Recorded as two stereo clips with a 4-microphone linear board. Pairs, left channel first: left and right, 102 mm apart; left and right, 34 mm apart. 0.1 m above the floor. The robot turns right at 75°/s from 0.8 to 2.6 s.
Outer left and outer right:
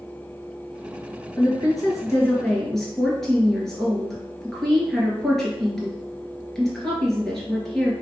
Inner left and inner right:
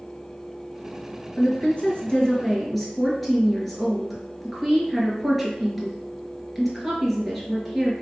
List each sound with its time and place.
1.4 s a woman speaking: 80° left, 1.7 m; by 7.9 s 170° left, 1.7 m